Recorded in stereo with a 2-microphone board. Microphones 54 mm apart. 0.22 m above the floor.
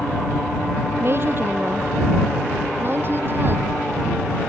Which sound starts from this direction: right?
A woman speaking, at 1.0 s.